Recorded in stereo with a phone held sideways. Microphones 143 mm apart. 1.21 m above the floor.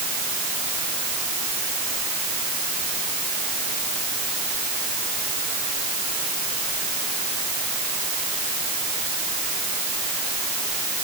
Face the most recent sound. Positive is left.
No sound to turn to.